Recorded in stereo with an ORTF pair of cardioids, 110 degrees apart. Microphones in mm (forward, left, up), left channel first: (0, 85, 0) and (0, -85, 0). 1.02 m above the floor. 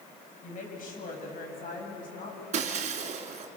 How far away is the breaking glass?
About 3.5 m.